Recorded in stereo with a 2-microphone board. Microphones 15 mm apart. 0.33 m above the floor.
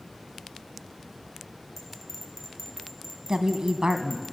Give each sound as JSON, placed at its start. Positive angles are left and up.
{"t": 1.8, "sound": "a bell", "side_deg": 10, "distance_m": 4.5}
{"t": 3.3, "sound": "a woman speaking", "side_deg": -60, "distance_m": 2.5}